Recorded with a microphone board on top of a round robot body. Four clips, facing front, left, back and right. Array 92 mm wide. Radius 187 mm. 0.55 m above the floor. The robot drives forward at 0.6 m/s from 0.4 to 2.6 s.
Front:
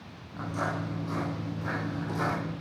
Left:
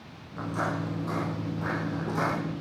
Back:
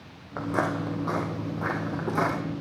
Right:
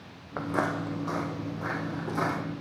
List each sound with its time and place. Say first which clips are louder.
0.4 s footsteps: right 2 dB, back 5 dB; 130° right, 0.9 m; by 2.4 s straight behind, 4 m